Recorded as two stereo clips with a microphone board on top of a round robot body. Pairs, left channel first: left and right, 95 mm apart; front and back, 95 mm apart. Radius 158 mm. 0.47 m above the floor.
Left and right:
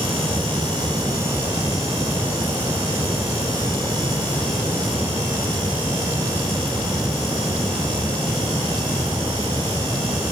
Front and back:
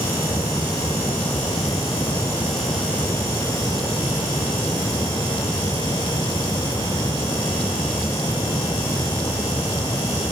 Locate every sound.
Only background noise.